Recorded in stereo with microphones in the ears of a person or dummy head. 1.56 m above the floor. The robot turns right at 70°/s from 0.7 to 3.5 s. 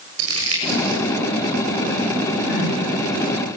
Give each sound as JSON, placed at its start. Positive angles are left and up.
{"t": 0.2, "sound": "crumpling", "side_deg": -85, "distance_m": 7.5}
{"t": 2.5, "sound": "crying", "side_deg": 65, "distance_m": 6.5}